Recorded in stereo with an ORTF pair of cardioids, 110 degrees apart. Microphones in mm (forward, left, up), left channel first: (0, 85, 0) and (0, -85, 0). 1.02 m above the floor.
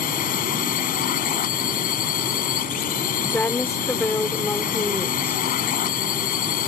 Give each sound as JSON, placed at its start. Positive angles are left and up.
{"t": 0.0, "sound": "a drone", "azimuth_deg": 60}
{"t": 3.3, "sound": "a woman speaking", "azimuth_deg": 10}